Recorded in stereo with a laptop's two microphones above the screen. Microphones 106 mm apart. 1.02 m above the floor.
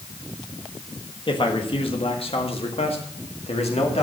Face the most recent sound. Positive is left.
turn(degrees=75)  # may be behind; listen again after turning